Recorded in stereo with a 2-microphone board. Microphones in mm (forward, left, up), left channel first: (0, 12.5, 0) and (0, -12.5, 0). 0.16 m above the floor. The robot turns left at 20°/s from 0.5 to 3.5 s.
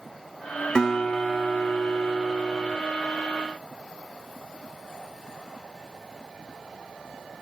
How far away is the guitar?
About 4 m.